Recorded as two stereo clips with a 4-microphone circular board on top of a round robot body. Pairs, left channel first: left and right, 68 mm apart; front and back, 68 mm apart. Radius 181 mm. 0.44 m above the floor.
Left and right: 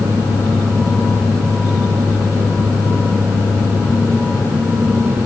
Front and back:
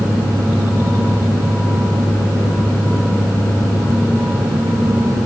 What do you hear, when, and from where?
Only background noise.